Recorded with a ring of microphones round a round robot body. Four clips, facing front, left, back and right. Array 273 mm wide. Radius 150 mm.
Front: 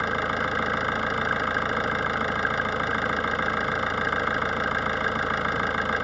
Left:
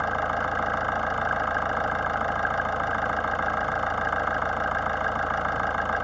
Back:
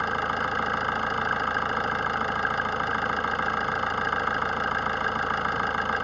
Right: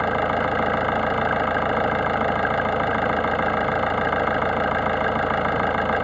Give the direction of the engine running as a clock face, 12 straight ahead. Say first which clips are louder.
Right 5 dB, front 1 dB; 3 o'clock.